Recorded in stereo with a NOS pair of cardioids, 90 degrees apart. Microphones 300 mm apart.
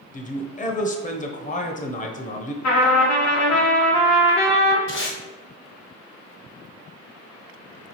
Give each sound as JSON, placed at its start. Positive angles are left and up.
{"t": 0.1, "sound": "a man speaking", "azimuth_deg": 25, "distance_m": 0.9}
{"t": 2.6, "sound": "a trumpet", "azimuth_deg": 65, "distance_m": 1.2}
{"t": 4.9, "sound": "tape being pulled", "azimuth_deg": 40, "distance_m": 1.3}